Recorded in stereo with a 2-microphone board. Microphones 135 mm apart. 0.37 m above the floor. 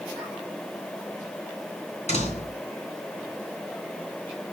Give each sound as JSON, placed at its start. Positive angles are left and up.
{"t": 2.1, "sound": "a door slam", "side_deg": 55, "distance_m": 3.5}